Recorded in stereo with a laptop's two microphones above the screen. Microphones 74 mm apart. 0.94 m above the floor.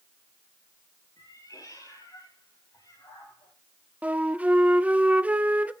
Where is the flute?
20° right (ahead or behind), 0.7 m.